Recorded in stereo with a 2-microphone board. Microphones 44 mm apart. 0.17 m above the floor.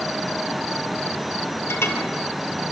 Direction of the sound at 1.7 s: 70° left (ahead or behind).